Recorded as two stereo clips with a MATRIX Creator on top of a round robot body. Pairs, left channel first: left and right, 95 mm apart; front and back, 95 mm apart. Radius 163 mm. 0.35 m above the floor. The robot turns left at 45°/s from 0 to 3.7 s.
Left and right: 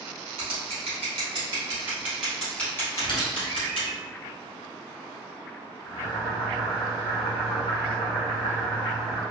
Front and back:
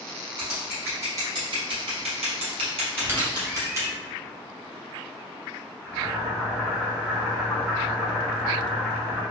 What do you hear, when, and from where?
0.4 s scissors: 90° right, 1.2 m; by 4.0 s 120° left, 1.2 m
3.0 s a squeak: 120° left, 1.0 m; by 3.9 s 90° left, 1.0 m
5.8 s boiling: 100° left, 0.8 m